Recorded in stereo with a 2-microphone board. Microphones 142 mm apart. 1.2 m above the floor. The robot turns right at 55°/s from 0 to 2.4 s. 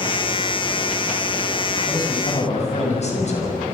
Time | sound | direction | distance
1.9 | a man speaking | 20° left (ahead or behind) | 7 m